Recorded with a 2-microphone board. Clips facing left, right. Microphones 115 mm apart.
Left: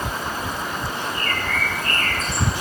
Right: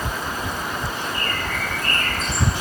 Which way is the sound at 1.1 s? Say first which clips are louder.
Left 1 dB; 60° right (ahead or behind).